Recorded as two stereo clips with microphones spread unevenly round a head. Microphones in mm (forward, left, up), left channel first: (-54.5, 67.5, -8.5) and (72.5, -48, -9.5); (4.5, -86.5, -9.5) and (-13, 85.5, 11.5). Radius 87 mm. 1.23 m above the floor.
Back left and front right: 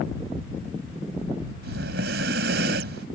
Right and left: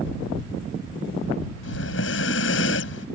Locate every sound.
1.6 s breathing: 70° right